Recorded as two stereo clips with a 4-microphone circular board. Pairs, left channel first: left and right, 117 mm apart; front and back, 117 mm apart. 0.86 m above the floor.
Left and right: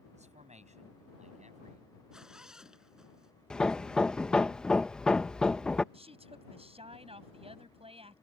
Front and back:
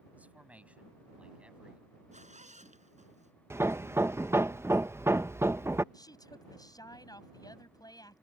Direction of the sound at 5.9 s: 55° right.